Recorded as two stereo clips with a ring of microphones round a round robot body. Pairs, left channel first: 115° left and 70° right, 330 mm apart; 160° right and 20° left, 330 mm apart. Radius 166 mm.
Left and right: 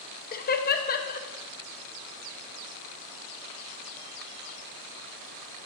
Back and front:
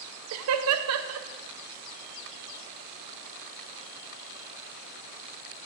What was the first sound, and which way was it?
Laughter, 55° left.